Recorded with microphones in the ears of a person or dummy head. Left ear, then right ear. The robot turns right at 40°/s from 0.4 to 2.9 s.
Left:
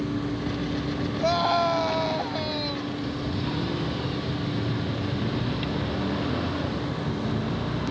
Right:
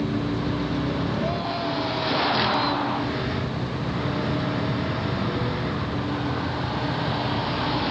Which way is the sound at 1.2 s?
115° left.